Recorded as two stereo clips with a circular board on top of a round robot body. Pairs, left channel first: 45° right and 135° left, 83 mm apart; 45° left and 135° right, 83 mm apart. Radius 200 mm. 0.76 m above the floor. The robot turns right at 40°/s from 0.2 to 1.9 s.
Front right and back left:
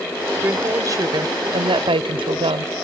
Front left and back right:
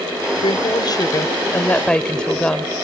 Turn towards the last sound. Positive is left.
turn(degrees=125)